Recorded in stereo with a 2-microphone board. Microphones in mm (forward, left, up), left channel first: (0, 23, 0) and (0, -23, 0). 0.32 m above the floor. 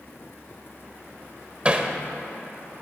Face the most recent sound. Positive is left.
turn(degrees=-25)  # may be behind; listen again after turning